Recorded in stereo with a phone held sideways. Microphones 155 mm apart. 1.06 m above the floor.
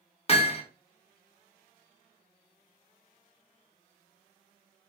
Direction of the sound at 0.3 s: 40° left (ahead or behind).